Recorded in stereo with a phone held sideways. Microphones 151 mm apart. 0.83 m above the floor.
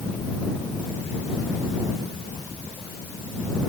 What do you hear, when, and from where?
Only background noise.